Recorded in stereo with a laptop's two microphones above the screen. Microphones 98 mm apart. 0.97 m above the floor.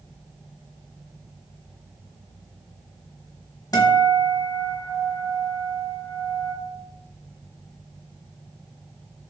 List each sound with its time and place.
3.7 s a guitar: 40° left (ahead or behind), 0.8 m